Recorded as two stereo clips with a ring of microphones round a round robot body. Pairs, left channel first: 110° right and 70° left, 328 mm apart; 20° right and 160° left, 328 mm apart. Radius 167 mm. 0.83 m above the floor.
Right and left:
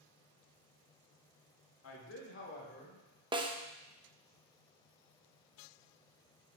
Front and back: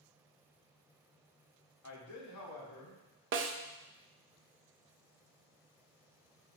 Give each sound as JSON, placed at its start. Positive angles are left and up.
{"t": 1.8, "sound": "a man speaking", "azimuth_deg": -65, "distance_m": 1.7}
{"t": 3.3, "sound": "a snare drum", "azimuth_deg": 135, "distance_m": 0.8}